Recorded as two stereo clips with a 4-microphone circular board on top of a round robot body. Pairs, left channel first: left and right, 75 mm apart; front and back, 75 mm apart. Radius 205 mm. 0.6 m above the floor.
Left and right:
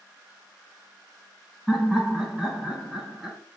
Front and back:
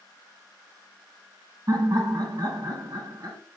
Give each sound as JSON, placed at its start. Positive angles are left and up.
{"t": 1.7, "sound": "laughter", "azimuth_deg": 180, "distance_m": 1.6}